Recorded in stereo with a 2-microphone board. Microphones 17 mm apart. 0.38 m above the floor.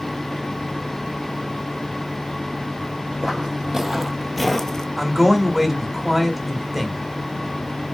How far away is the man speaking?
About 1.0 m.